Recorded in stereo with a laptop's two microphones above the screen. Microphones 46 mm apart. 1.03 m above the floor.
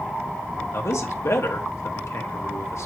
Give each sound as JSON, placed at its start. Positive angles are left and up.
{"t": 0.7, "sound": "a man speaking", "side_deg": 70, "distance_m": 1.9}